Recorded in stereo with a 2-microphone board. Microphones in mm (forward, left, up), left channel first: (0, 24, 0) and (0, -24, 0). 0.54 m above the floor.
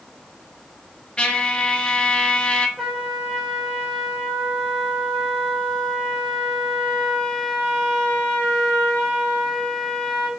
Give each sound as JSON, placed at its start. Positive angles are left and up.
{"t": 1.2, "sound": "a trumpet", "side_deg": 20, "distance_m": 0.5}
{"t": 2.8, "sound": "a trumpet", "side_deg": 5, "distance_m": 1.5}